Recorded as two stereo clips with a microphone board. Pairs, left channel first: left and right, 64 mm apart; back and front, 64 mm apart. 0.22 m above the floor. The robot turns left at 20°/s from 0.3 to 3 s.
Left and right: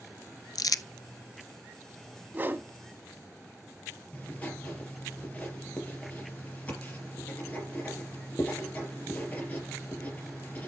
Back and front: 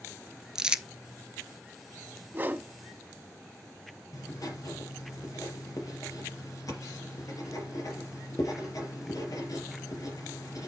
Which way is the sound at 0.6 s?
80° left.